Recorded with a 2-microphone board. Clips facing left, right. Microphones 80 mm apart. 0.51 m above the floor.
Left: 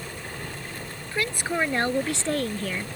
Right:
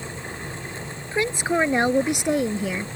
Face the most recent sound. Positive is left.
turn(degrees=-10)  # may be behind; listen again after turning